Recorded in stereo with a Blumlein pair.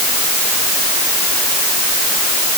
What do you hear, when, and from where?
Only background noise.